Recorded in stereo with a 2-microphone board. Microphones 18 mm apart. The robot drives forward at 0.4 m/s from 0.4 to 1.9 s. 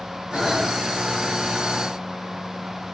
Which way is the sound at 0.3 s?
85° right.